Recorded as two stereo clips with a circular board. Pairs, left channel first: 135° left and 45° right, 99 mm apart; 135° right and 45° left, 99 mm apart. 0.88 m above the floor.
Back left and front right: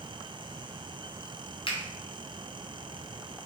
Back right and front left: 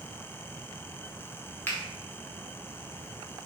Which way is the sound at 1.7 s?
155° left.